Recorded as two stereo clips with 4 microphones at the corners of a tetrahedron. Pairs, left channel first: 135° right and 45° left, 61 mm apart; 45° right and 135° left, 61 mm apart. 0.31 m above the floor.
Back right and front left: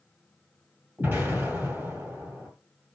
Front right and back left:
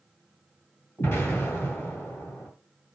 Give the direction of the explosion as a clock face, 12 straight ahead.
12 o'clock.